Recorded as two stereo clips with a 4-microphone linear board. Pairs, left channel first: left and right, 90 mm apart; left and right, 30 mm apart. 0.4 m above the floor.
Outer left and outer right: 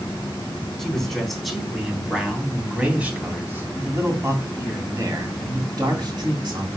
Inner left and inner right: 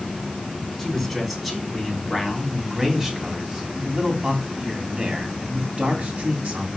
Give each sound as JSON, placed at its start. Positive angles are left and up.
{"t": 0.8, "sound": "a man speaking", "side_deg": 5, "distance_m": 3.5}